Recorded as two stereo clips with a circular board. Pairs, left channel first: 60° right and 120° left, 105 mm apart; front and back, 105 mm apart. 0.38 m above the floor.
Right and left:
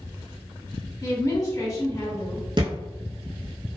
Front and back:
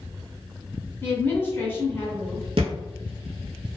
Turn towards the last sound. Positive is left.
turn(degrees=160)